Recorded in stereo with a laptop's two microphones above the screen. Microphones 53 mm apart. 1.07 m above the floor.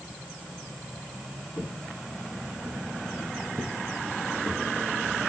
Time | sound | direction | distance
1.6 | footsteps | 60° left (ahead or behind) | 2 m